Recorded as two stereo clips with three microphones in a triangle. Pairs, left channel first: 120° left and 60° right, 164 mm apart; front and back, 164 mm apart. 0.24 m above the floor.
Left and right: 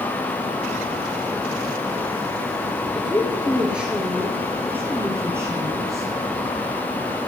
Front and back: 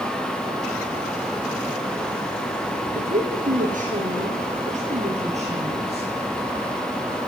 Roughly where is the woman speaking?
Behind right.